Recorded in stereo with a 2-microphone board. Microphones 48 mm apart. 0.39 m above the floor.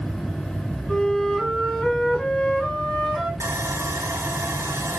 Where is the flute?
10° left (ahead or behind), 1.8 m.